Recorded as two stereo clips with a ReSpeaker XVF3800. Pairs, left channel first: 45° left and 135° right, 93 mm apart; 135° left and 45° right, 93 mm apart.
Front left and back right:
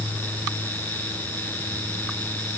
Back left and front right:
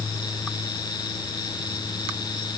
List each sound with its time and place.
Only background noise.